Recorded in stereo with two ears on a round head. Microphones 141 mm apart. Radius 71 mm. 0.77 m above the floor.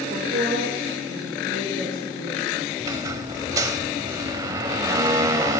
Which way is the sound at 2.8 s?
25° right (ahead or behind).